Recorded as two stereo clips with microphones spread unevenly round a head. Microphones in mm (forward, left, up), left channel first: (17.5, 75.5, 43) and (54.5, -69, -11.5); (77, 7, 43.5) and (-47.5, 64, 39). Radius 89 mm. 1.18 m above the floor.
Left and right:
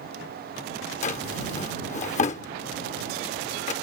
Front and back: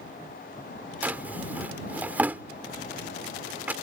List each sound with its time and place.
1.0 s a drawer: 75° left